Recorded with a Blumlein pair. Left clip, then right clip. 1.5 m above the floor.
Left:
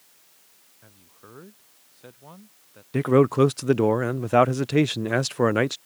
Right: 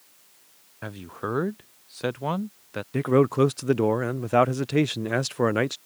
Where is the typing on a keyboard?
I don't hear typing on a keyboard.